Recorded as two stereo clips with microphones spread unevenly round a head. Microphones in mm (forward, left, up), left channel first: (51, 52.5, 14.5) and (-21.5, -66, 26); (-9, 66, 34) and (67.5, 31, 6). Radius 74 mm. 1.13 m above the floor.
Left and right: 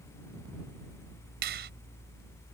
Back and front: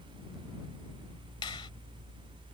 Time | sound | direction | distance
1.4 | a finger snap | 145° right | ?